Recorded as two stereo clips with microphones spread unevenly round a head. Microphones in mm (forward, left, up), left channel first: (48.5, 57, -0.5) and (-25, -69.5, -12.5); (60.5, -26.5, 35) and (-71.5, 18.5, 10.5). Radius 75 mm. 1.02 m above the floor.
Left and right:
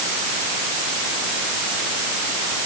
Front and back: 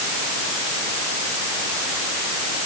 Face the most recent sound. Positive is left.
No sound to turn to.